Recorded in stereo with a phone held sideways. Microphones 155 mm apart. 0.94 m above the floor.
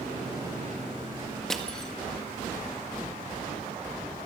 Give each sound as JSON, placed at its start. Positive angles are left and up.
{"t": 1.5, "sound": "crushing", "side_deg": 5, "distance_m": 1.6}